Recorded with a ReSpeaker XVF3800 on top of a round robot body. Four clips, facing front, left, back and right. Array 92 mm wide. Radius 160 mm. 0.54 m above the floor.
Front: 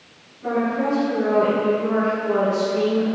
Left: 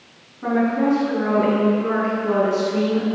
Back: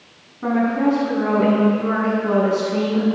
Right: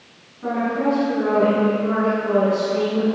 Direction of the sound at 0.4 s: 165° left.